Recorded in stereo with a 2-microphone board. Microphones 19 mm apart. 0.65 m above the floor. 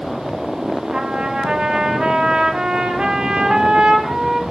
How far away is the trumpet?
About 0.8 m.